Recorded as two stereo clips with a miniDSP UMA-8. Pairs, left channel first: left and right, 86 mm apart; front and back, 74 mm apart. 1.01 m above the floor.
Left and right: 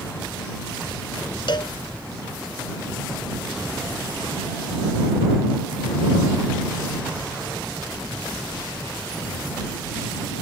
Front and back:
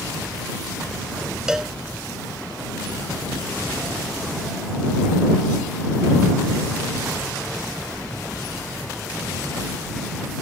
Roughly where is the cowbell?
Left.